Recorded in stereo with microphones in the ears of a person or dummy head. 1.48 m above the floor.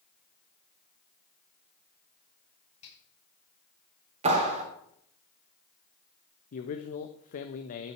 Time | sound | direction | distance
2.8 | a finger snap | 35° left (ahead or behind) | 8.5 m
4.2 | a clap | 35° right (ahead or behind) | 3.5 m
6.5 | a man speaking | 50° left (ahead or behind) | 1.1 m